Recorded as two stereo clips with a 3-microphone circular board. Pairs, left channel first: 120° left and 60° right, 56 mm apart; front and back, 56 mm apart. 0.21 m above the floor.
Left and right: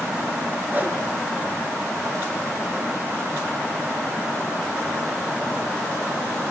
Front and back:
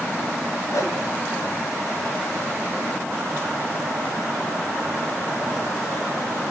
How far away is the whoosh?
About 3 m.